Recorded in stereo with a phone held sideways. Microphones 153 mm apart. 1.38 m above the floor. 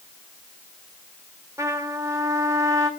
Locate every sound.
1.6 s a trumpet: 20° right (ahead or behind), 1.4 m